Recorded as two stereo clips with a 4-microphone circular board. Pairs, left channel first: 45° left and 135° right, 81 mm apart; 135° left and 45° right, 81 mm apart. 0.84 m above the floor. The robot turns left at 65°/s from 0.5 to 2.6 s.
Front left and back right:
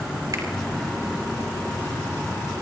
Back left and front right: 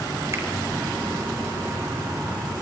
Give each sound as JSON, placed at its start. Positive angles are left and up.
{"t": 0.3, "sound": "a finger snap", "azimuth_deg": -95, "distance_m": 4.0}